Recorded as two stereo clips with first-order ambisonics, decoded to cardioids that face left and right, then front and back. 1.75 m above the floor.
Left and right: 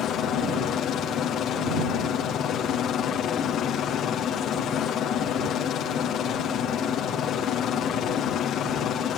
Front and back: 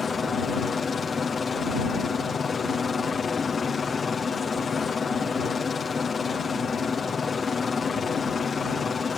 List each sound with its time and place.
0.0 s a helicopter: 65° left